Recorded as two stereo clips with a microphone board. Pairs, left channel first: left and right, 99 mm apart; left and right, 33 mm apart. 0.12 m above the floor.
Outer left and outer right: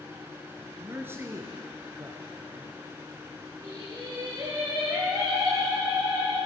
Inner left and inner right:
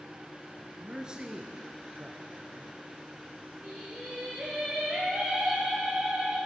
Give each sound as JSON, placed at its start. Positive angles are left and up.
{"t": 0.8, "sound": "a man speaking", "side_deg": -15, "distance_m": 1.4}
{"t": 3.6, "sound": "singing", "side_deg": -35, "distance_m": 3.0}